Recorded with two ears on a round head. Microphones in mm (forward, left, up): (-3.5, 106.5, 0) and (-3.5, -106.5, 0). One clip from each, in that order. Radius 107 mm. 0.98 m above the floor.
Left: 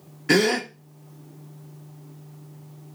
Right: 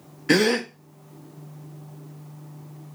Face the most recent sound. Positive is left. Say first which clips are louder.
# even
turn(degrees=0)  # may be behind; listen again after turning